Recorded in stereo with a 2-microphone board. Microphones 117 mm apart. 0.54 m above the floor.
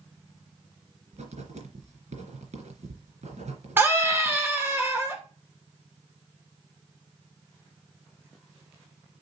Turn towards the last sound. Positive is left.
turn(degrees=-20)  # may be behind; listen again after turning